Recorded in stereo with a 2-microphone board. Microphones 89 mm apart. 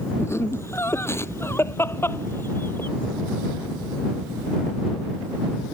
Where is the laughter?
30° left (ahead or behind); by 2.9 s 25° left (ahead or behind).